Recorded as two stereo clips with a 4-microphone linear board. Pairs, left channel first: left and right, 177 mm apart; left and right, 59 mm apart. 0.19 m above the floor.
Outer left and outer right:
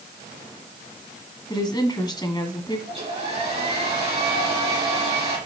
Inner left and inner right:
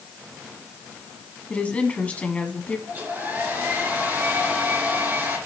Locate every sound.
1.5 s a woman speaking: 25° left (ahead or behind), 1.6 m
2.9 s a hair dryer: 35° right (ahead or behind), 4 m